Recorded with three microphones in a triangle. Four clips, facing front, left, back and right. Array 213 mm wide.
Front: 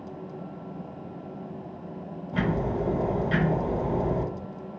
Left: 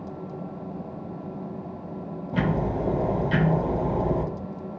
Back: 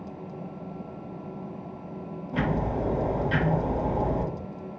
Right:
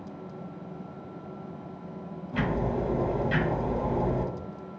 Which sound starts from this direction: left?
Ticking, at 2.3 s.